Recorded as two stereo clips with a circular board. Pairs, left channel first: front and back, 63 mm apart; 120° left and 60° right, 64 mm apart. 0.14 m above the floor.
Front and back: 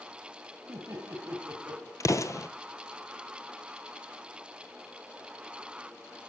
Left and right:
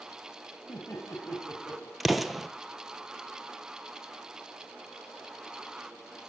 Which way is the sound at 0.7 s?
145° left.